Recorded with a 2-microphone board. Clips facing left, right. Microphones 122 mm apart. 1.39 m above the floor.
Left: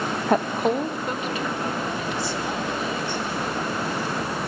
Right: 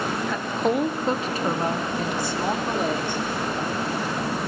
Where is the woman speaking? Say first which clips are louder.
Left 4 dB; 55° left (ahead or behind), 0.6 m; by 3.2 s 50° right (ahead or behind), 4 m.